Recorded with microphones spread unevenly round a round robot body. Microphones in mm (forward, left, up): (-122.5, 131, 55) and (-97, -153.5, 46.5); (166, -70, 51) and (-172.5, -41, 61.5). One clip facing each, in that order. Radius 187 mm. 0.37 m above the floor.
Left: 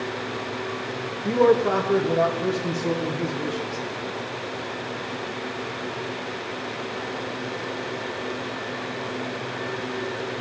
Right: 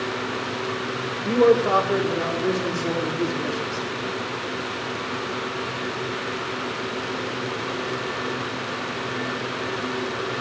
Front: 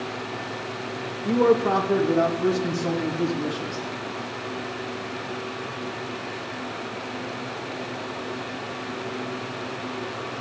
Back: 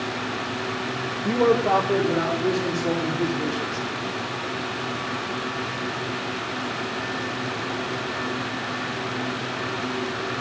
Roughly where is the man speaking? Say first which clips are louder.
Right 1 dB, front 1 dB; behind left.